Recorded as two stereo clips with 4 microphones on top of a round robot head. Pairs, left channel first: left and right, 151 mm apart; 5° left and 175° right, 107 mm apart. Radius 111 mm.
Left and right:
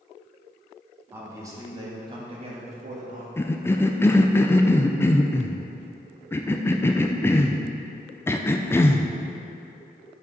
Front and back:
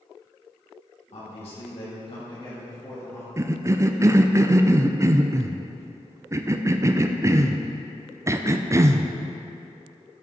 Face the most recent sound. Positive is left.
turn(degrees=150)